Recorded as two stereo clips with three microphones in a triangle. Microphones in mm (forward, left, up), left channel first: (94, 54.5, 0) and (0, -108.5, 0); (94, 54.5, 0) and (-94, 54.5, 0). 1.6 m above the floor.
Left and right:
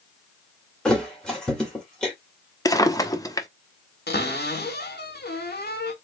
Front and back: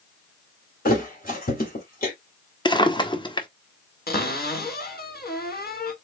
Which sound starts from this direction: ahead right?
A thud, at 0.8 s.